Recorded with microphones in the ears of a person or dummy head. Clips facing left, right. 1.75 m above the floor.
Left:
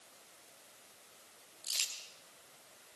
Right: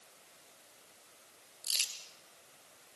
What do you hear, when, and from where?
1.6 s crumpling: 15° right (ahead or behind), 3 m